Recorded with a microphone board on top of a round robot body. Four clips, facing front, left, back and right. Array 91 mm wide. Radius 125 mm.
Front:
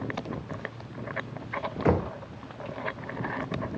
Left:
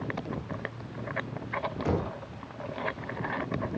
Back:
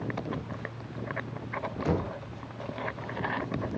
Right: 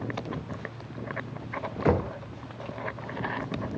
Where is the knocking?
45° right, 2 m.